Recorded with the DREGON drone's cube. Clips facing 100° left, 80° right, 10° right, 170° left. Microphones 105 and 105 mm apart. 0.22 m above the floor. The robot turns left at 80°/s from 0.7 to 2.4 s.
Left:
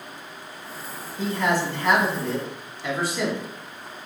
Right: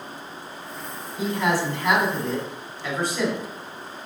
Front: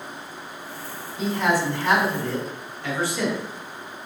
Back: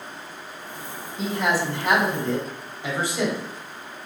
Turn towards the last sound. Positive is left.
turn(degrees=170)